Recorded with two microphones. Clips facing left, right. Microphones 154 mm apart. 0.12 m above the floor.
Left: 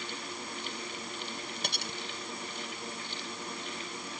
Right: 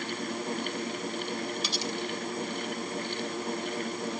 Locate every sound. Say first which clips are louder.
1.6 s cutlery clinking: right 7 dB; 55° left (ahead or behind)